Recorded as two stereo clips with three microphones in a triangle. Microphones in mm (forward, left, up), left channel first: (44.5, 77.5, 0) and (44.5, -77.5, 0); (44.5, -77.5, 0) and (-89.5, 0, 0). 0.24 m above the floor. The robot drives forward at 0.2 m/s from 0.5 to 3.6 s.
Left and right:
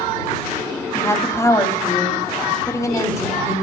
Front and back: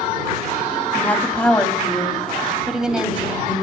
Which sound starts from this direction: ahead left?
A woman speaking, at 0.9 s.